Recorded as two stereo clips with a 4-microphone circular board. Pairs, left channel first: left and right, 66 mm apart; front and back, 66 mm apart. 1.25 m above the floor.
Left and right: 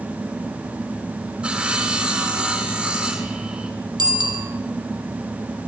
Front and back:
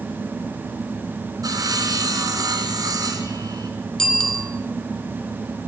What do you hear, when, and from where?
1.4 s sawing: 165° right, 5.5 m
4.0 s a bicycle bell: 80° right, 5.5 m